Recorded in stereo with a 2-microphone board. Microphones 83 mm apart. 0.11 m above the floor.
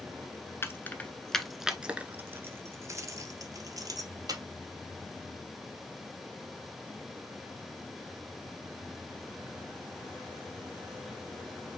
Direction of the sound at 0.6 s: 30° left (ahead or behind).